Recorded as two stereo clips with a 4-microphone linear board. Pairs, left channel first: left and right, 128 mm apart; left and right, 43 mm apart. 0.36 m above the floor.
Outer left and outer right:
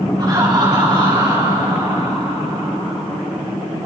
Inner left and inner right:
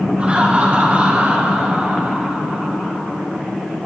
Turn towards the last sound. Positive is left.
turn(degrees=-40)  # may be behind; listen again after turning